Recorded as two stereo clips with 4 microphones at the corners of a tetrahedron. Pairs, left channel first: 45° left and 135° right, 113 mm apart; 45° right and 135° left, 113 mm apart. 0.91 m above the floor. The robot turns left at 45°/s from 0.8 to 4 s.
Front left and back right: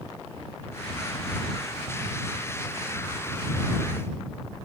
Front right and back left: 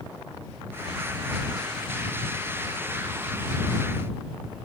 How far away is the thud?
No thud in this recording.